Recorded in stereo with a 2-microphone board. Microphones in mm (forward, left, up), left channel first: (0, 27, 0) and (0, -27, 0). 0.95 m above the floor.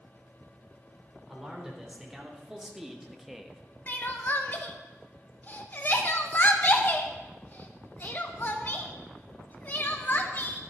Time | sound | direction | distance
1.3 | a man speaking | 10° right (ahead or behind) | 3.5 m
3.9 | crying | 35° left (ahead or behind) | 1.0 m